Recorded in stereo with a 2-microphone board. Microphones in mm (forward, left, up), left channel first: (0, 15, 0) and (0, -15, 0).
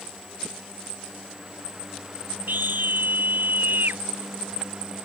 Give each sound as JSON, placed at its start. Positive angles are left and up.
{"t": 2.5, "sound": "a scream", "side_deg": -80}